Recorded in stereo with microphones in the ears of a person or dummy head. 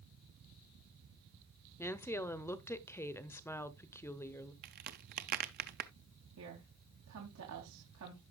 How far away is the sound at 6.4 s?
About 2.5 m.